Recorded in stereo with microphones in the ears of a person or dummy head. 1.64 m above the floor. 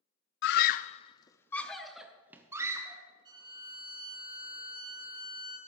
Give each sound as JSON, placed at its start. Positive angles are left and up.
{"t": 0.4, "sound": "a scream", "side_deg": 65, "distance_m": 0.5}
{"t": 3.2, "sound": "a violin", "side_deg": -25, "distance_m": 3.0}